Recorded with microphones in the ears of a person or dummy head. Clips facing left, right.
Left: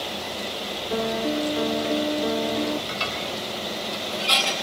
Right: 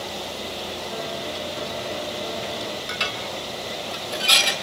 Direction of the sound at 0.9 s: 55° left (ahead or behind).